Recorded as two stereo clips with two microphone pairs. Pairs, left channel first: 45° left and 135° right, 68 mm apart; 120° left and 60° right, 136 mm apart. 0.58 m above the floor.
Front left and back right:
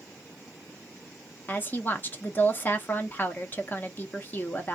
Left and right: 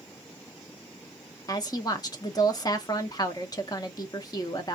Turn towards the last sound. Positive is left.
turn(degrees=80)